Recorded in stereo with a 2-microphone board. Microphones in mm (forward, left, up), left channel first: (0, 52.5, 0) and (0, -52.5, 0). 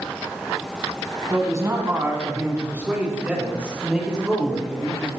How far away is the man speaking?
About 3 m.